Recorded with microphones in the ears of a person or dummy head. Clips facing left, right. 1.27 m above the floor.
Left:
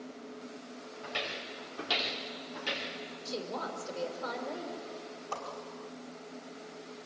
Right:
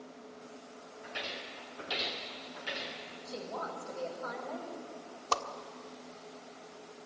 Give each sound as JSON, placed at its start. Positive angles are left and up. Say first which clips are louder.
{"t": 1.0, "sound": "footsteps", "louder": "left 3 dB", "side_deg": 80, "distance_m": 9.5}
{"t": 3.2, "sound": "a woman speaking", "louder": "left 2 dB", "side_deg": 45, "distance_m": 6.0}
{"t": 5.3, "sound": "a whoosh", "louder": "right 6 dB", "side_deg": -75, "distance_m": 1.5}